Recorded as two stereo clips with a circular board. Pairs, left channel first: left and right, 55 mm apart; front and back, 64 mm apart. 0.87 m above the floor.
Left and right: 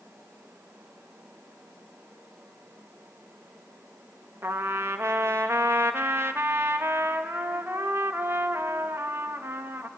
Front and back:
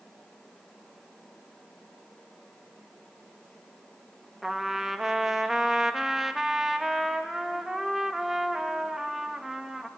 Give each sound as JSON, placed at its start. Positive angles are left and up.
{"t": 4.4, "sound": "a trumpet", "azimuth_deg": -95, "distance_m": 1.0}